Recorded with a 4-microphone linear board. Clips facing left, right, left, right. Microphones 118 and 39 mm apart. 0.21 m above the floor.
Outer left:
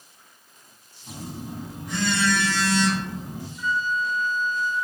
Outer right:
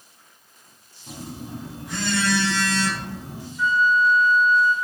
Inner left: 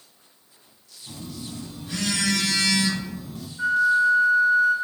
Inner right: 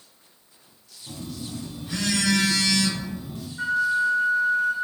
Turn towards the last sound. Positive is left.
turn(degrees=-70)  # may be behind; listen again after turning